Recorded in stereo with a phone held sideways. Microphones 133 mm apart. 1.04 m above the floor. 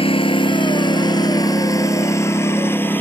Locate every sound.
0.0 s a lawn mower: 45° left (ahead or behind); by 3.0 s 15° left (ahead or behind)